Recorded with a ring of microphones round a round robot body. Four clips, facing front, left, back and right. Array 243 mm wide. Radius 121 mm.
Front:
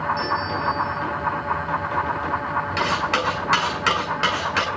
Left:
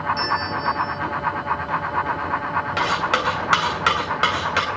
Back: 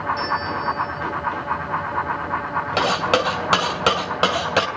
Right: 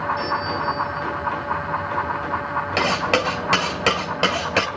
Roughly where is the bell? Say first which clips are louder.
Even, even; left.